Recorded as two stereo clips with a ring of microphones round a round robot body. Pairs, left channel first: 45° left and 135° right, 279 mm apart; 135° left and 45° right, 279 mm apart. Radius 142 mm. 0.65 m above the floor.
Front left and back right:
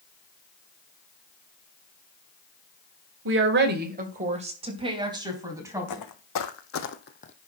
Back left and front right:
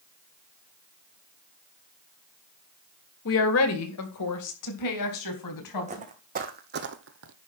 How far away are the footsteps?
About 2 m.